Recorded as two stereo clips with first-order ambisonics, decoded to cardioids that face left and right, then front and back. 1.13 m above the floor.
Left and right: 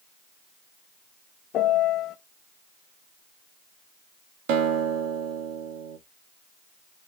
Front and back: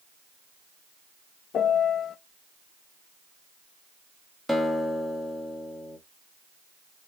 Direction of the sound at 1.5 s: 50° left.